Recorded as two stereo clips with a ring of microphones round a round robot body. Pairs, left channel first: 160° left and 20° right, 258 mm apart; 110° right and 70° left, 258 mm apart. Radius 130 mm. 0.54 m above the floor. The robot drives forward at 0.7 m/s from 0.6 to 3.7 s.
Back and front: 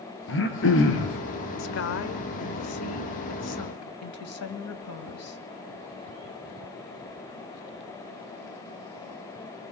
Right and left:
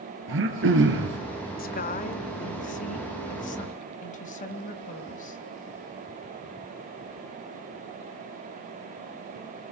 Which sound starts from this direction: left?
Throat clearing, at 0.3 s.